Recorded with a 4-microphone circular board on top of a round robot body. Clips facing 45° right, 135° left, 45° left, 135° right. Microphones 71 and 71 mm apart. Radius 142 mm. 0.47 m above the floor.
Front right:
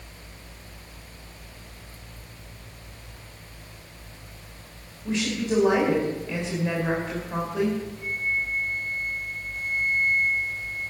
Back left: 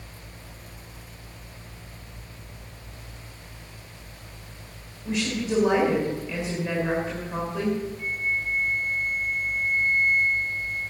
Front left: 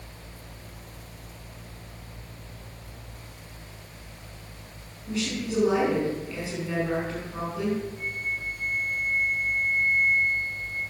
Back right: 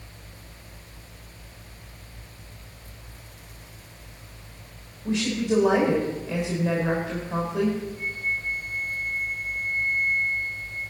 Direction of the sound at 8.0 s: 35° right.